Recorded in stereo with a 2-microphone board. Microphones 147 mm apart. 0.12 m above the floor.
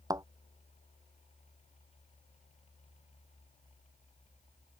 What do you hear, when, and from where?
0.1 s a thud: 25° right (ahead or behind)